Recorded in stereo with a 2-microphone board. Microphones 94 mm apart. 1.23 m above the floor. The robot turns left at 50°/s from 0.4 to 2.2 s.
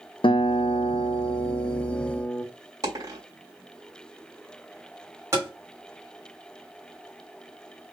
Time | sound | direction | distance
0.2 | a guitar | 110° left | 0.7 m
2.8 | a dropped coin | 40° right (ahead or behind) | 3 m
5.3 | tapping | 30° right (ahead or behind) | 2.5 m